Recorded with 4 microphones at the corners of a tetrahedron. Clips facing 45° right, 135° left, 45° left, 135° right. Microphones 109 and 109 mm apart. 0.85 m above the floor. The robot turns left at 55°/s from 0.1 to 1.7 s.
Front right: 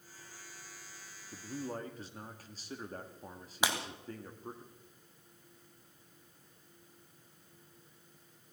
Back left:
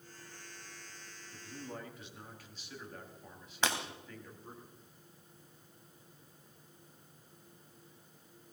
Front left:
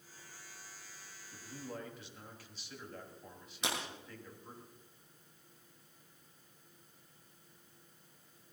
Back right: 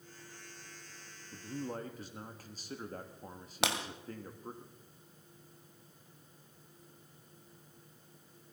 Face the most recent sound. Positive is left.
turn(degrees=-125)